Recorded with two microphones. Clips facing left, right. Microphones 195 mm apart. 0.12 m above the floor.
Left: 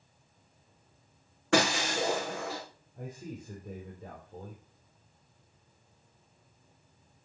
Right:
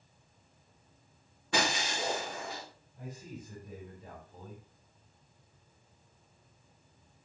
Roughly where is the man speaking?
Left.